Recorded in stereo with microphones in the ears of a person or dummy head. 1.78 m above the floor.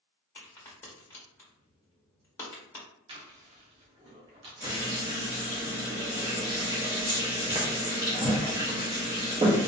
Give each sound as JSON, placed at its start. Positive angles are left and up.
{"t": 0.3, "sound": "a crack", "side_deg": 15, "distance_m": 1.1}
{"t": 3.1, "sound": "chewing", "side_deg": -30, "distance_m": 0.9}
{"t": 4.6, "sound": "frying", "side_deg": -20, "distance_m": 0.8}